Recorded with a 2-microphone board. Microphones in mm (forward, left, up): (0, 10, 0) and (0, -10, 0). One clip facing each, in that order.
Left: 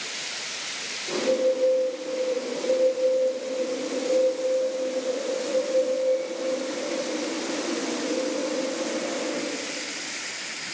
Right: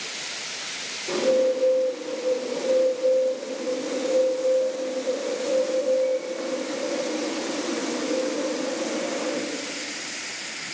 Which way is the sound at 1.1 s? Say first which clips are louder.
Right 2 dB; 45° right (ahead or behind).